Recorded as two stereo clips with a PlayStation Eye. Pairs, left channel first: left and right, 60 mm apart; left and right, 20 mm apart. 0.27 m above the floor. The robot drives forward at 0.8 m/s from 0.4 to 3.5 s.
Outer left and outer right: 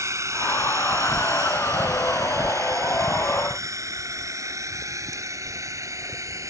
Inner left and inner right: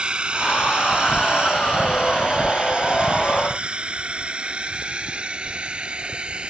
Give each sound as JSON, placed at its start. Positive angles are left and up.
{"t": 0.0, "sound": "a drone", "side_deg": -60}